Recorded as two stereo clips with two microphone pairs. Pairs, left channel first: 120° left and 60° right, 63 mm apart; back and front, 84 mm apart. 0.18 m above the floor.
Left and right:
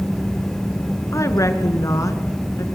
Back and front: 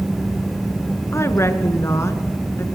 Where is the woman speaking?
130° left, 2.5 m.